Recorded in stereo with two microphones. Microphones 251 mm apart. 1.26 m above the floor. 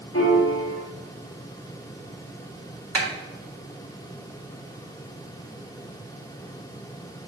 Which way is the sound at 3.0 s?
75° right (ahead or behind).